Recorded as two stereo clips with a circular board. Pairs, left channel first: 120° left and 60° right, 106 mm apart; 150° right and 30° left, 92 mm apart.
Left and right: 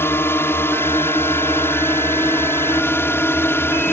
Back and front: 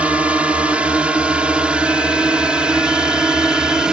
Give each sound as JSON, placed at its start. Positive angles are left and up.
{"t": 0.0, "sound": "a drone", "azimuth_deg": 90}